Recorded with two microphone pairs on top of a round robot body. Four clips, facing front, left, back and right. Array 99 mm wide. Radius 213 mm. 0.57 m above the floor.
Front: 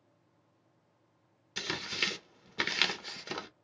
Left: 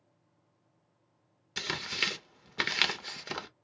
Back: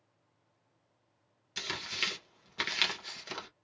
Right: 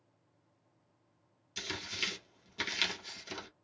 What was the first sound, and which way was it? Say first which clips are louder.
Tearing paper: left 5 dB, front 2 dB; 85° left.